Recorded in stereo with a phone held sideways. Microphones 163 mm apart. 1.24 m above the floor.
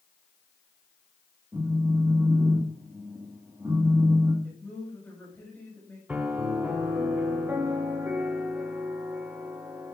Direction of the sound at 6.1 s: 10° right (ahead or behind).